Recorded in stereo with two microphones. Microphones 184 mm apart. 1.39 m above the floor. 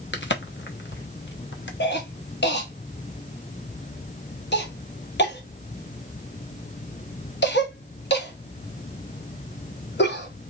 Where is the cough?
70° left (ahead or behind), 1.2 m.